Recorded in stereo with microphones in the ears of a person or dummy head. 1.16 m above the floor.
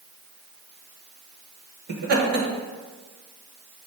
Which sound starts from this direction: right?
Laughter, at 1.9 s.